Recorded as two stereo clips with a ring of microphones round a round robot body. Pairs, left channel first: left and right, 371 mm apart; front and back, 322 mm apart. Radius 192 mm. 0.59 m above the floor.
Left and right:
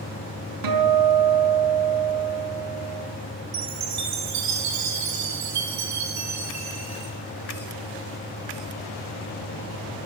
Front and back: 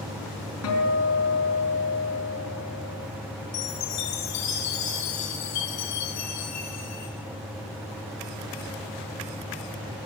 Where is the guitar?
55° right, 4.5 m.